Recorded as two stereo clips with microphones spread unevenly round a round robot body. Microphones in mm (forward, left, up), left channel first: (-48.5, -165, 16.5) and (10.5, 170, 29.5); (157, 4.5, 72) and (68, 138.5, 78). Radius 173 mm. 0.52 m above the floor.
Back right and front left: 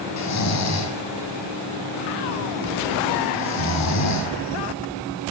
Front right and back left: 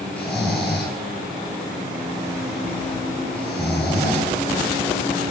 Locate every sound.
0.2 s snoring: 140° right, 5 m